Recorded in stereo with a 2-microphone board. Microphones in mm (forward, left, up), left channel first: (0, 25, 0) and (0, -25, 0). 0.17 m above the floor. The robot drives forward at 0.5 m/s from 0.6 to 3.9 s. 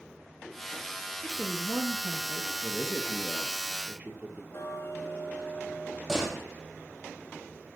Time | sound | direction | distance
1.2 | a woman speaking | 40° right (ahead or behind) | 3 m
2.6 | a man speaking | 25° right (ahead or behind) | 4 m
4.5 | ticking | 60° left (ahead or behind) | 4 m
6.1 | a door slam | 10° right (ahead or behind) | 4 m